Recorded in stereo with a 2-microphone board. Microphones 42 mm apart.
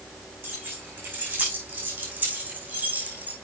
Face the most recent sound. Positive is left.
turn(degrees=-40)  # may be behind; listen again after turning